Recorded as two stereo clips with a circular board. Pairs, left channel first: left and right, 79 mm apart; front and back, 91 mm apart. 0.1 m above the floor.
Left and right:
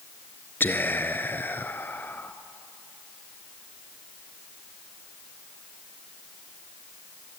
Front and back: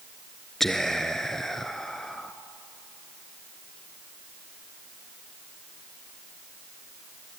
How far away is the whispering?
About 1.2 m.